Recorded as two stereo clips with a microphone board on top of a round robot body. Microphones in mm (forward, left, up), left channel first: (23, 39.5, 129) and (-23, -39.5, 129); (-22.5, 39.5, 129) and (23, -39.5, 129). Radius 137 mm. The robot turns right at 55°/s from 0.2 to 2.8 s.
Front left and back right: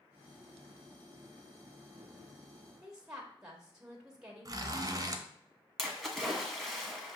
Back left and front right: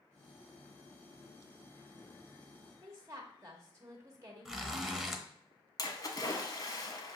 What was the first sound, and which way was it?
A woman speaking, 45° right.